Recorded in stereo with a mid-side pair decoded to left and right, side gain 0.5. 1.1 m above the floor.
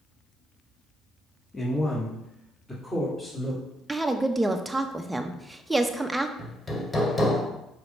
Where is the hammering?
25° left, 1.8 m.